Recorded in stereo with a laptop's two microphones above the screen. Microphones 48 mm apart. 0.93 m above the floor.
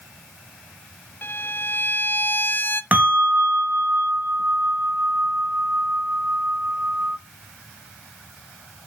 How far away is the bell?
About 0.8 m.